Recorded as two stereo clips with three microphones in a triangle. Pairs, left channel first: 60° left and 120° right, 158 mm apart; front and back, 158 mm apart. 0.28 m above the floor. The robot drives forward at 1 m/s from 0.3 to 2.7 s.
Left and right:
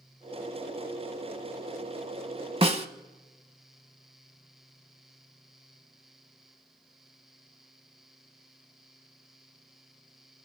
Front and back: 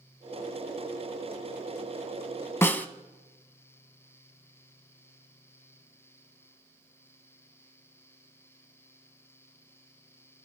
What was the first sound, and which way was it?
A snare drum, 70° right.